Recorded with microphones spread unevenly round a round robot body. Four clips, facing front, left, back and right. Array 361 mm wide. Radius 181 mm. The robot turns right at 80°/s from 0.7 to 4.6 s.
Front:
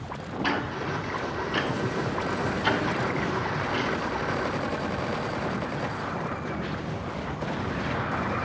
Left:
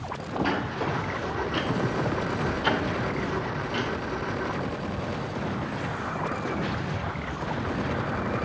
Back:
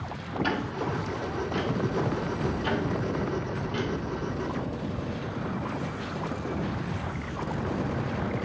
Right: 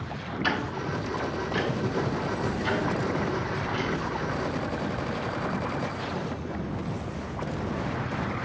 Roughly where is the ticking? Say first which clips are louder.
Even, front 2 dB; right.